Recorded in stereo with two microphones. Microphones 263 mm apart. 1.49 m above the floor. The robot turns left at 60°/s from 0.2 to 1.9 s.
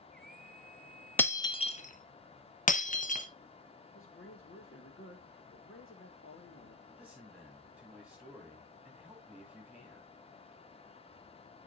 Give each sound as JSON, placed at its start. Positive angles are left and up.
{"t": 1.2, "sound": "breaking glass", "side_deg": 5, "distance_m": 0.8}
{"t": 4.0, "sound": "a man speaking", "side_deg": 55, "distance_m": 2.0}
{"t": 6.9, "sound": "a man speaking", "side_deg": -5, "distance_m": 4.0}